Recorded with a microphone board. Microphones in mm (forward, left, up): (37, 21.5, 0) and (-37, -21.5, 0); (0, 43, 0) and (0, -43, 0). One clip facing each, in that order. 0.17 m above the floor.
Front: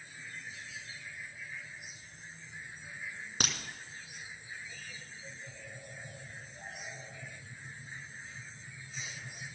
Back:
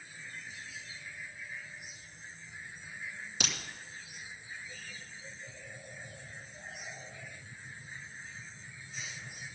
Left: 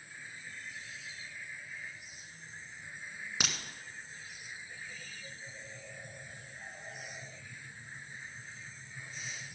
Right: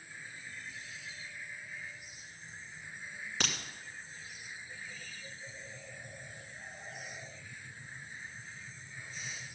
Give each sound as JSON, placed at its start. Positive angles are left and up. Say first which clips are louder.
{"t": 3.4, "sound": "a crack", "louder": "front 2 dB, right 1 dB", "azimuth_deg": 15, "distance_m": 1.7}